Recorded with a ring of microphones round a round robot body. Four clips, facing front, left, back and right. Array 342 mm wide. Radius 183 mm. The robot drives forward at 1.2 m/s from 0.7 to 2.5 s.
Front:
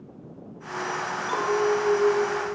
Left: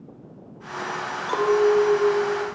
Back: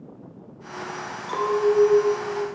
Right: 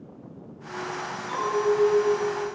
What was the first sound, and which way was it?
A clink, 85° left.